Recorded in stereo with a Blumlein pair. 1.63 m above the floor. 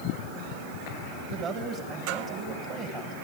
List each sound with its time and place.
1.3 s a man speaking: 30° right, 2 m